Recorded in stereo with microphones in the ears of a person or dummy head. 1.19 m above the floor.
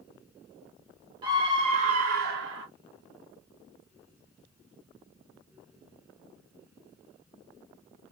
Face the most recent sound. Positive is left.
turn(degrees=-60)  # may be behind; listen again after turning